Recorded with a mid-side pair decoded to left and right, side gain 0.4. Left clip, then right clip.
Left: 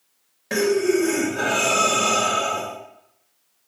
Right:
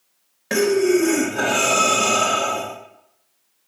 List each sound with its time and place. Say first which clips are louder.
0.5 s breathing: right 2 dB; 40° right, 0.8 m